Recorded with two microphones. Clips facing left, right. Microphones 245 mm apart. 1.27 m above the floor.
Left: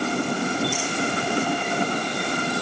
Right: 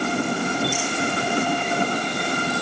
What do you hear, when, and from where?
Only background noise.